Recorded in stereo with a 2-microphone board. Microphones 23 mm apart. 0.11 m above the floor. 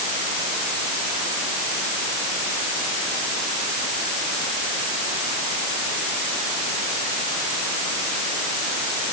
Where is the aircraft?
No aircraft in this recording.